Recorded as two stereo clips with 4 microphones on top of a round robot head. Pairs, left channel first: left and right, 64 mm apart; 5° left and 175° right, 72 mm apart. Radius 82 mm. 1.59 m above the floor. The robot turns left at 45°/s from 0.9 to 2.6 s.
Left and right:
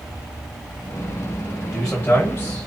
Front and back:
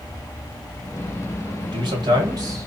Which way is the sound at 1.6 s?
175° right.